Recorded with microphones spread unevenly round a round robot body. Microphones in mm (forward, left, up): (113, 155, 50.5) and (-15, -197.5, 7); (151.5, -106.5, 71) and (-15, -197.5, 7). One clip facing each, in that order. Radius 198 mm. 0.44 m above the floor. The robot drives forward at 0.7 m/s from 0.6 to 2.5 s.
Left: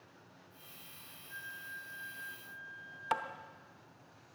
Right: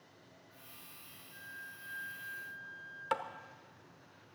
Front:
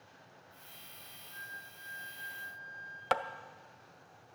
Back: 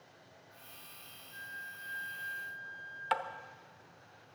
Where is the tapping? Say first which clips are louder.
Right 2 dB, front 3 dB; 15° right, 0.8 m.